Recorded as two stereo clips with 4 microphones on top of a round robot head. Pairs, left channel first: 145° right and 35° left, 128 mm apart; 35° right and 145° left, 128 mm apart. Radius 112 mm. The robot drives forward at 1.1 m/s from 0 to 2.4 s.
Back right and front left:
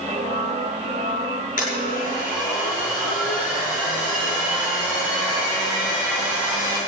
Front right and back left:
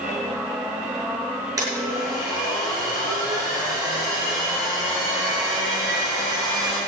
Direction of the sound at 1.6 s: 150° right.